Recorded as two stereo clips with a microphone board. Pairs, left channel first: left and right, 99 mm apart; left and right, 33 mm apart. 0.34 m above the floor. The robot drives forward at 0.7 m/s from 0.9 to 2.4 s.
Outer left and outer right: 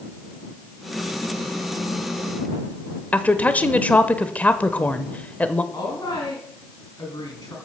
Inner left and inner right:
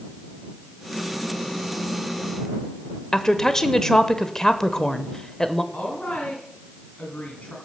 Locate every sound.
3.1 s a woman speaking: 15° left (ahead or behind), 0.9 m
5.7 s a woman speaking: 40° left (ahead or behind), 3.5 m